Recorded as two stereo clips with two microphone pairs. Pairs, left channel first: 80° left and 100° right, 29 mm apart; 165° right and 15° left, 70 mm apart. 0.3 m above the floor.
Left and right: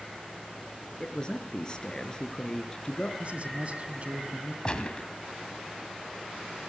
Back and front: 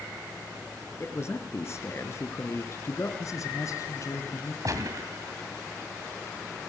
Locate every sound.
1.0 s a man speaking: 145° left, 4 m
3.2 s a man speaking: 140° right, 2.5 m
4.7 s a gunshot: 30° left, 2.5 m